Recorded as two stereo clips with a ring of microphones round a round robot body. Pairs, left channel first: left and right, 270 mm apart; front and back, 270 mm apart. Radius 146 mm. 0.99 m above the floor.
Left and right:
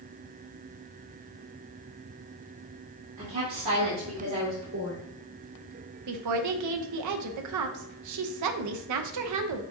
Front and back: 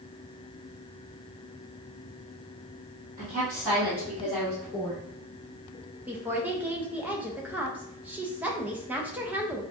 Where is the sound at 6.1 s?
95° right, 0.6 m.